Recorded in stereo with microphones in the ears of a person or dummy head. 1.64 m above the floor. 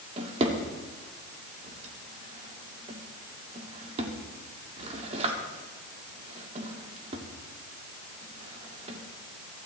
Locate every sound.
0.2 s a drawer: 35° right (ahead or behind), 2 m